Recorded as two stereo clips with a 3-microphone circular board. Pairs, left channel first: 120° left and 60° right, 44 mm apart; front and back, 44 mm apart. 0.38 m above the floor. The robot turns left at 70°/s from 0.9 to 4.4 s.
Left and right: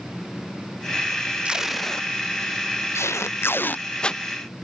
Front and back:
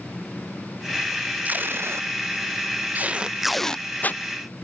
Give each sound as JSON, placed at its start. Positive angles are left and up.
{"t": 1.4, "sound": "tape being pulled", "azimuth_deg": -125}